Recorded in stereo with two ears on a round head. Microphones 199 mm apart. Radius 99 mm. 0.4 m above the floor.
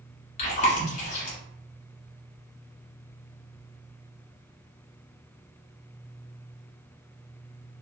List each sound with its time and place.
0.4 s chewing: 35° left (ahead or behind), 1.1 m